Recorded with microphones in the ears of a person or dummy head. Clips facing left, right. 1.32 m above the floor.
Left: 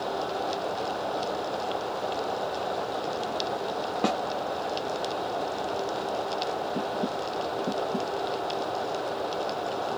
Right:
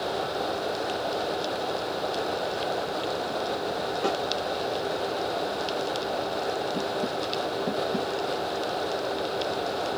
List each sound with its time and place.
4.0 s a snare drum: 80° left, 1.3 m